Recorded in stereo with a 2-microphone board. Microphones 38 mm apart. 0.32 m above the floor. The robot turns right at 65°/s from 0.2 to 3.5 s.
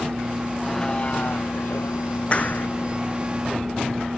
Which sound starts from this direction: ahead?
A vehicle, at 0.0 s.